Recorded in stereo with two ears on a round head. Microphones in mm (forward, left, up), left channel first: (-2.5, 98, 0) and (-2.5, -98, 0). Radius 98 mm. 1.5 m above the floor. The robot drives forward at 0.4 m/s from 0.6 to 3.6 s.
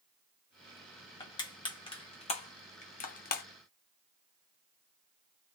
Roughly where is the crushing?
Centre.